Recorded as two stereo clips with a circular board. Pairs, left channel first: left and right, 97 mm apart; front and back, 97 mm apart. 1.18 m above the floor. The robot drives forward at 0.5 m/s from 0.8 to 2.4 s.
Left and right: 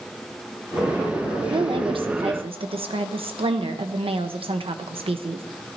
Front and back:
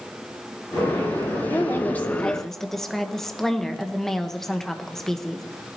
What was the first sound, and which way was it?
A woman speaking, 60° right.